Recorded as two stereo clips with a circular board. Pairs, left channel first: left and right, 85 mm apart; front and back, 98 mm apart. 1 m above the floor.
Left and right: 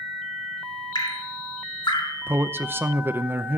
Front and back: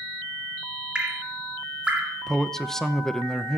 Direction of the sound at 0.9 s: 100° left.